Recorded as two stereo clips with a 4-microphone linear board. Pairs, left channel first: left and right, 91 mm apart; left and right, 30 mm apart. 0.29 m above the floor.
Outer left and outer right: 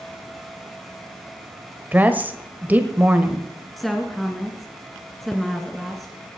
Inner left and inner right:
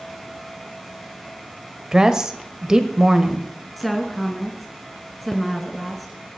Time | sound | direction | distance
1.9 | a woman speaking | 20° right (ahead or behind) | 1.1 m
3.8 | a woman speaking | centre (ahead or behind) | 3 m